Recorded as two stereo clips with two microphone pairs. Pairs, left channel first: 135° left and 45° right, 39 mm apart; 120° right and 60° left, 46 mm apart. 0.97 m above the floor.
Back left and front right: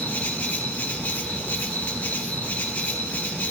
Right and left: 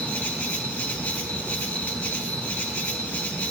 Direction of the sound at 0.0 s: Straight behind.